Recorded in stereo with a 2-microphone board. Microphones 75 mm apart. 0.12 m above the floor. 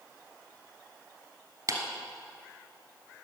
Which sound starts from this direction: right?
A clap, at 1.7 s.